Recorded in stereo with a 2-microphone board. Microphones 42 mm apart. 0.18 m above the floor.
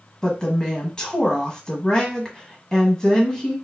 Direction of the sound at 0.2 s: 15° left (ahead or behind).